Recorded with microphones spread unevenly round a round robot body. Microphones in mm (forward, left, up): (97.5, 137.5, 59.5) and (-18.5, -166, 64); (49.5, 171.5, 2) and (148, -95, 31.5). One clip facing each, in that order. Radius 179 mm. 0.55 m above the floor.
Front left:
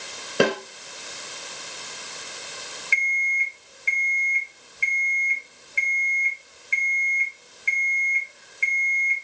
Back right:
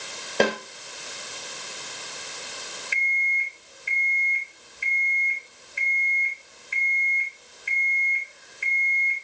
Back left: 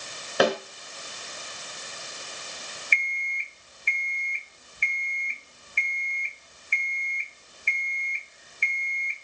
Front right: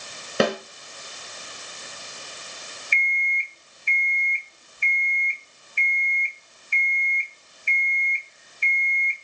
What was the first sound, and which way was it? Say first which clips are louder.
A snare drum: front left 2 dB, even; 5° right.